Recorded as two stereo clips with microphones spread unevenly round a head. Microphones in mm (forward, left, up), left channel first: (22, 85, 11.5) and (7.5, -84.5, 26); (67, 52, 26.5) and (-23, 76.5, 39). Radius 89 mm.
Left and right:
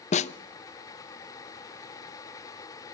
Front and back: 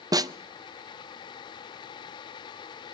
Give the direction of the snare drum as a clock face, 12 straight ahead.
8 o'clock.